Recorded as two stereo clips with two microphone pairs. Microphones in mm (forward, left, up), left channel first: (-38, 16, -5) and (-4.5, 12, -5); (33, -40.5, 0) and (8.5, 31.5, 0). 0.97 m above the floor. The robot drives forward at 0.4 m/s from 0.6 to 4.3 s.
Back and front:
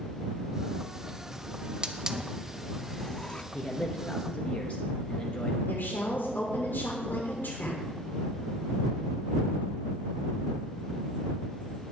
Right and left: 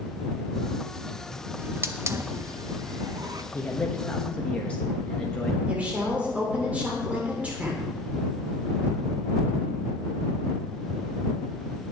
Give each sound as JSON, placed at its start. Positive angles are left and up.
{"t": 1.6, "sound": "a hiss", "azimuth_deg": 50, "distance_m": 0.8}
{"t": 3.5, "sound": "a man speaking", "azimuth_deg": -130, "distance_m": 0.9}
{"t": 5.7, "sound": "a woman speaking", "azimuth_deg": 180, "distance_m": 3.0}